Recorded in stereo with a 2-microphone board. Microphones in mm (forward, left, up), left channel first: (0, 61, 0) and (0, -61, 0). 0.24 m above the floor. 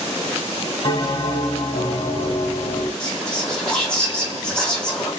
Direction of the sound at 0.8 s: 45° left (ahead or behind).